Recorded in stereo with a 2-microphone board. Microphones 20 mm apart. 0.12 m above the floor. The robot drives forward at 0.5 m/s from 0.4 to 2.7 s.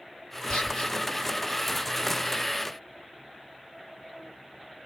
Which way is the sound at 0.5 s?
35° left (ahead or behind).